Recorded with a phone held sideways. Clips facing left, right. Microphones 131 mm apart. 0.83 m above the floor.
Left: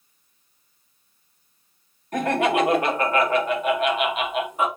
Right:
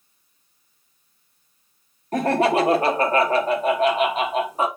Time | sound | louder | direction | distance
2.1 | laughter | right 2 dB | 35° right (ahead or behind) | 0.7 m